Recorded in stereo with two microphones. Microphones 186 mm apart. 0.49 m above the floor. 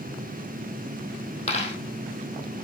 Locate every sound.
1.5 s a dropped coin: 35° left (ahead or behind), 3 m